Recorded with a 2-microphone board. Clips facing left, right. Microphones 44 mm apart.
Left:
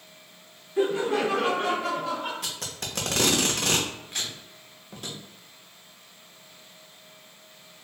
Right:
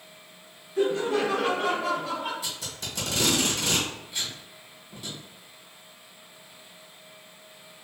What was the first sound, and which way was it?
Laughter, 20° left (ahead or behind).